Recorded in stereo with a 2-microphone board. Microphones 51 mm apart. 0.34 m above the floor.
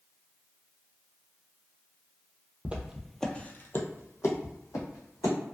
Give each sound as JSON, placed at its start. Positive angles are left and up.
{"t": 2.6, "sound": "footsteps", "side_deg": -25, "distance_m": 0.6}